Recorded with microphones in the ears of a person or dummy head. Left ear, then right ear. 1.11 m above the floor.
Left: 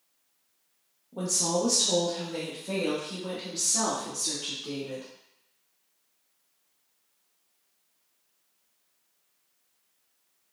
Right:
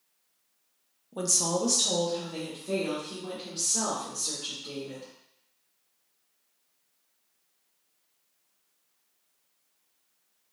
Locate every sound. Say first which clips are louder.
1.1 s a woman speaking: even; 50° right (ahead or behind), 0.5 m; by 5.0 s 20° left (ahead or behind), 2.0 m